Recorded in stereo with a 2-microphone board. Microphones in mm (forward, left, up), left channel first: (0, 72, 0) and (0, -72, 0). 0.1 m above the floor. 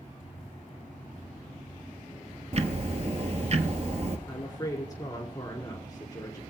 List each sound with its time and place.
2.5 s ticking: 50° right (ahead or behind), 0.7 m
4.3 s a woman speaking: 25° left (ahead or behind), 1.4 m